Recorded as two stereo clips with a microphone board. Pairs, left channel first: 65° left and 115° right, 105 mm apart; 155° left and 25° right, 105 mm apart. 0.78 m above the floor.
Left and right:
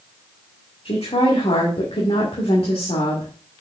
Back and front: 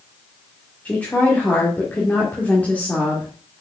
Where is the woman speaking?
85° left, 2 m.